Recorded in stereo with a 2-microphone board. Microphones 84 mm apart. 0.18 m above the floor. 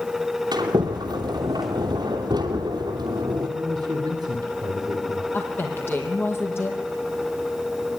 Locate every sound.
0.5 s a sliding door: 55° right (ahead or behind), 3 m
3.5 s a man speaking: 55° right (ahead or behind), 3 m
5.3 s a woman speaking: 25° left (ahead or behind), 5.5 m